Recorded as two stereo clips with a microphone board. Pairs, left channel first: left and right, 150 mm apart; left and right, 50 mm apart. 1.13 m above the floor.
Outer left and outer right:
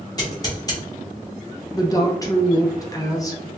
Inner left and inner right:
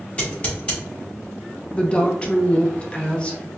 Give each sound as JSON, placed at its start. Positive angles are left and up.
{"t": 0.2, "sound": "scissors", "side_deg": 25, "distance_m": 1.3}
{"t": 1.7, "sound": "a woman speaking", "side_deg": 25, "distance_m": 0.5}